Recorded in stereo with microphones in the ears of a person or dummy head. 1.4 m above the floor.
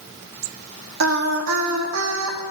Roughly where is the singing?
Right.